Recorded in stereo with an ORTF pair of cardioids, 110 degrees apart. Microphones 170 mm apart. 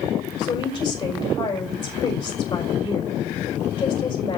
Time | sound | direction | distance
0.4 | a woman speaking | 30° left | 4.5 m